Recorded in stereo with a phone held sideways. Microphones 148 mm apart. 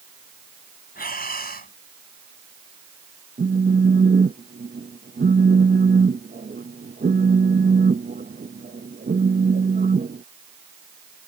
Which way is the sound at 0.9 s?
80° left.